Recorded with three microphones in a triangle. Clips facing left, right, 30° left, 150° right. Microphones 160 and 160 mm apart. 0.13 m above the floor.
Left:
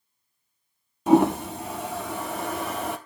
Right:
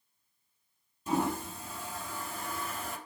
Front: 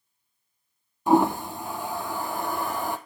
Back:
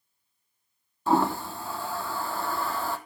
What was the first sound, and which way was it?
A toilet flushing, 100° left.